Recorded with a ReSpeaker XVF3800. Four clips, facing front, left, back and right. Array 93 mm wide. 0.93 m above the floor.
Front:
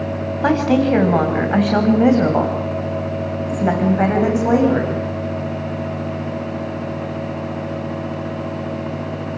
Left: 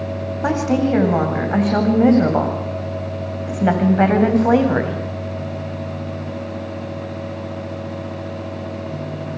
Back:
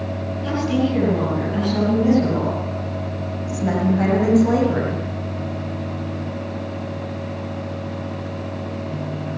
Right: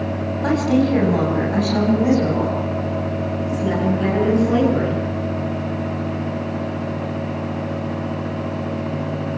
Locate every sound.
0.4 s a woman speaking: 15° left, 7.5 m; by 5.0 s 75° left, 7.5 m